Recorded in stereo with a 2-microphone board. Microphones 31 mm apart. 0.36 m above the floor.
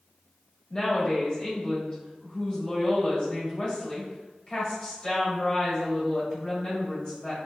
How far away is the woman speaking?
About 1.2 m.